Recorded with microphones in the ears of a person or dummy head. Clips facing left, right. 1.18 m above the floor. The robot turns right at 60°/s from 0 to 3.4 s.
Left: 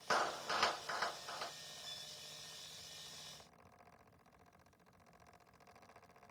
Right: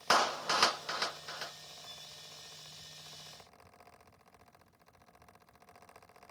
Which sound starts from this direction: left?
A violin, at 1.8 s.